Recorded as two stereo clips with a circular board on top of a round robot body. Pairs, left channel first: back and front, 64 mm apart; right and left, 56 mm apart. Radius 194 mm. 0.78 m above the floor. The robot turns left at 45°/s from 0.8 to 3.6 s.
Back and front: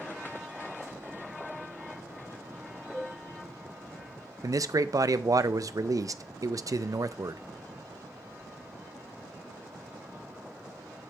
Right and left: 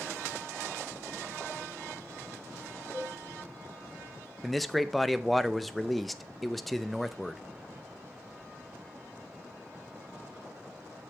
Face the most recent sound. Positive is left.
turn(degrees=0)